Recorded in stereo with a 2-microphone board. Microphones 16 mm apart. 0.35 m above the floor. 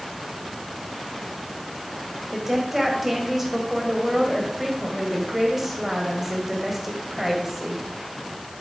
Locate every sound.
2.3 s a woman speaking: 10° right (ahead or behind), 1.9 m